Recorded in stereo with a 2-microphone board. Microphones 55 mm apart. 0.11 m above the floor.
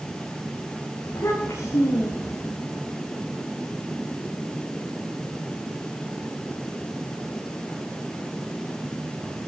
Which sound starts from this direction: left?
A child speaking, at 1.1 s.